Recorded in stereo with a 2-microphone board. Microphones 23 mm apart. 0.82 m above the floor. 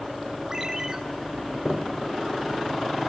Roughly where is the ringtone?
Right.